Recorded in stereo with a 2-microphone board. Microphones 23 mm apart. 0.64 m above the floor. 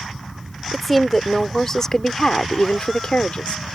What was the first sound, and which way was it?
A woman speaking, 5° left (ahead or behind).